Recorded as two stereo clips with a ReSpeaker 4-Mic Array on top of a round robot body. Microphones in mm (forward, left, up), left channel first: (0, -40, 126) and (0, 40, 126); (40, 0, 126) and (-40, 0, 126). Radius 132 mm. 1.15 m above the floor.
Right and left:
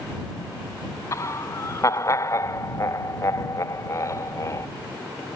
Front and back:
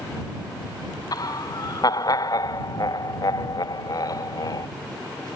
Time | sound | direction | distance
1.1 | laughter | 40° right | ?